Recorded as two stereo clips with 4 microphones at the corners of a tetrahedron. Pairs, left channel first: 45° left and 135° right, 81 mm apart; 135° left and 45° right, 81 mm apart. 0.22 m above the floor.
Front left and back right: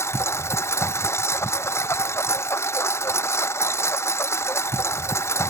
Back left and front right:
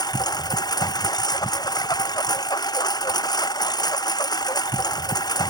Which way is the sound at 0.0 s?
100° left.